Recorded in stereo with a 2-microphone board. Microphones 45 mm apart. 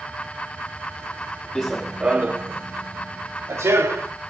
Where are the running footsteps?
10° left (ahead or behind), 0.6 m; by 4.1 s 80° right, 1.3 m.